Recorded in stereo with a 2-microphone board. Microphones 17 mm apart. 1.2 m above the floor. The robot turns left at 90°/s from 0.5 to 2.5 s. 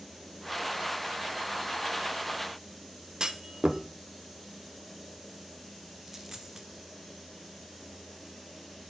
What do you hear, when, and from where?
3.2 s a clunk: 40° right (ahead or behind), 0.8 m
6.0 s a dropped coin: 30° right (ahead or behind), 1.4 m